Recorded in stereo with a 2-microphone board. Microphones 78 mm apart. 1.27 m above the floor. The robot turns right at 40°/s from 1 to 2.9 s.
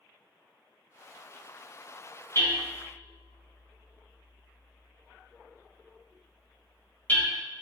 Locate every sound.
2.4 s hammering: 35° left (ahead or behind), 1.3 m; by 7.2 s 25° left (ahead or behind), 1.3 m